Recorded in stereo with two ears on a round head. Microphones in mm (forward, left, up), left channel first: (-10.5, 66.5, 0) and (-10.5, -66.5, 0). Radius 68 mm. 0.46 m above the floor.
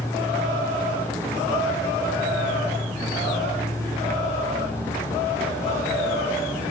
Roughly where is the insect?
Centre.